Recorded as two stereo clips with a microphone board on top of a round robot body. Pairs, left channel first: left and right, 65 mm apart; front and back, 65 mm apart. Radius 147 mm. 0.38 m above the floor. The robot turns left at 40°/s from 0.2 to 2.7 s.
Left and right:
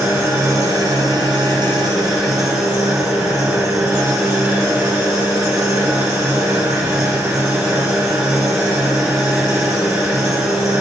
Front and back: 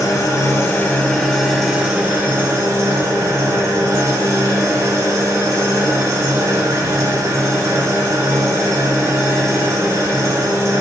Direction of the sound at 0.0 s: 40° right.